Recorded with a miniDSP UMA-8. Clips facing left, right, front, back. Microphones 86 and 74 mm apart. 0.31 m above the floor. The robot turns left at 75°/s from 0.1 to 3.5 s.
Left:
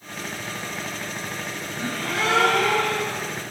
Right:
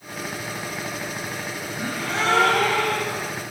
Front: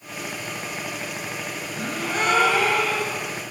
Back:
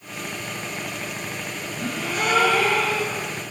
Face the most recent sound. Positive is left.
turn(degrees=-140)